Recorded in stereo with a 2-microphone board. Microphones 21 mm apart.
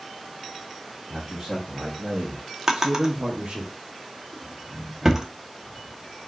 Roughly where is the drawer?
Right.